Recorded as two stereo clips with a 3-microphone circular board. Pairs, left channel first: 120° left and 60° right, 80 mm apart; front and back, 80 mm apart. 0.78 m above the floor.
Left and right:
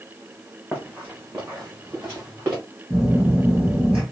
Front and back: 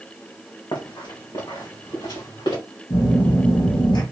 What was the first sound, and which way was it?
Running footsteps, 10° left.